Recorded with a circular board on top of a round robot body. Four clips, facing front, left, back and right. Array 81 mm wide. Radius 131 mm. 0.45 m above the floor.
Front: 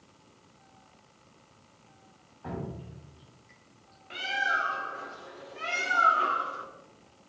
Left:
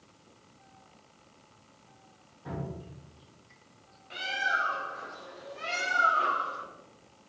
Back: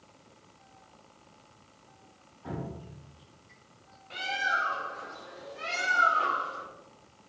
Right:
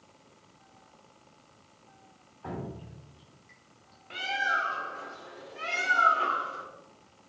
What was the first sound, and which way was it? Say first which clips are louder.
Dripping: even, front 1 dB; 55° right.